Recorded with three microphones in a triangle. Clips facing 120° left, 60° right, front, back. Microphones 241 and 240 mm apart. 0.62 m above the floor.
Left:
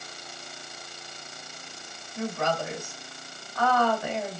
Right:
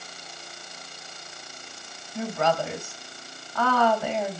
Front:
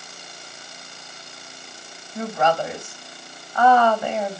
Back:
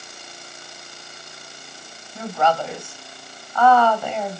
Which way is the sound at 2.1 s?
70° right.